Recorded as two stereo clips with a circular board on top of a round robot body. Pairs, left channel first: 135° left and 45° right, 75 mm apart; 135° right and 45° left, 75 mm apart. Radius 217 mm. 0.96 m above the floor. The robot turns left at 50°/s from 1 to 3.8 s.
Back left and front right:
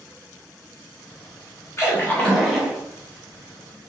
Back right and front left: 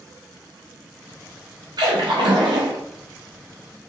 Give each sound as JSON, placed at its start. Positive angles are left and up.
{"t": 1.8, "sound": "a splash", "azimuth_deg": 80, "distance_m": 0.9}